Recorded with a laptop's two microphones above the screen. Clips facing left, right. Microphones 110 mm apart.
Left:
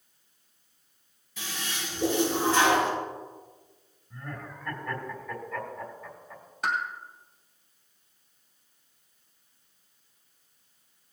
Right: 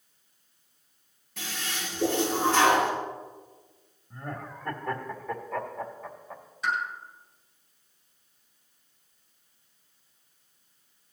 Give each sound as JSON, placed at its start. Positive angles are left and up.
{"t": 1.4, "sound": "a toilet flushing", "side_deg": -65, "distance_m": 6.5}
{"t": 4.1, "sound": "laughter", "side_deg": -45, "distance_m": 2.5}
{"t": 6.6, "sound": "a pop", "side_deg": 60, "distance_m": 2.5}